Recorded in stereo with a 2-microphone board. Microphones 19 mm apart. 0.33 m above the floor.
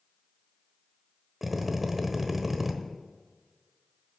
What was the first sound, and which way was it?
A drill, 10° right (ahead or behind).